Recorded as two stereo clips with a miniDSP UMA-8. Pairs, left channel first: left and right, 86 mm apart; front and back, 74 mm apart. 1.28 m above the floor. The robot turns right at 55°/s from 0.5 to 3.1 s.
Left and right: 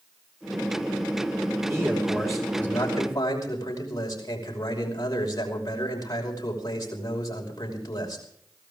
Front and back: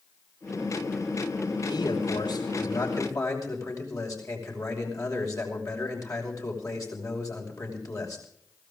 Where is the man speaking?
35° right, 5.5 m; by 8.3 s 40° left, 5.5 m.